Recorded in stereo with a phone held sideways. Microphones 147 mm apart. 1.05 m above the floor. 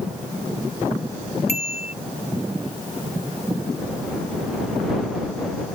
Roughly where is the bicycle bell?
Left.